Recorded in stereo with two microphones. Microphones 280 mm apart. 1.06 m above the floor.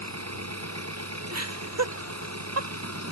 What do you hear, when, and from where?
0.0 s an engine running: 60° right (ahead or behind)
1.3 s laughter: 60° right (ahead or behind)